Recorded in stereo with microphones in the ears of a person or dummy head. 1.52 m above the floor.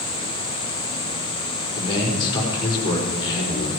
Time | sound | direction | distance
1.8 | a man speaking | 25° left (ahead or behind) | 5 m